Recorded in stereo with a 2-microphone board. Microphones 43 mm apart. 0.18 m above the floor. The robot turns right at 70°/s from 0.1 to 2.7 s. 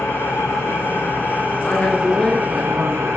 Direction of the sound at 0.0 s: 60° left.